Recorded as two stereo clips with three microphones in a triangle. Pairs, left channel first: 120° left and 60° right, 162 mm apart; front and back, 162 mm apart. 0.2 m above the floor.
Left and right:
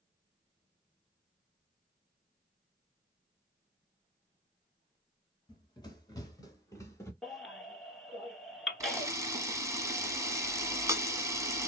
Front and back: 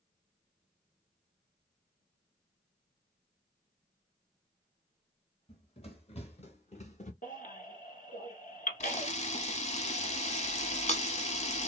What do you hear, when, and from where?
5.5 s running footsteps: 55° left, 1.9 m; by 7.1 s 45° left, 1.0 m
7.2 s a baby crying: 30° left, 1.2 m
8.8 s a camera shutter: straight ahead, 0.8 m